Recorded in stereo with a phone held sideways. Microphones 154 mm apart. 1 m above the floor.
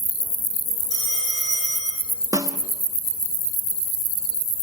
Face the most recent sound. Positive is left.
turn(degrees=-20)  # may be behind; listen again after turning